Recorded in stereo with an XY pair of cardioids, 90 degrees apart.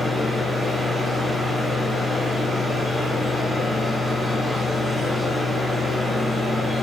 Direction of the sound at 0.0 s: 25° left.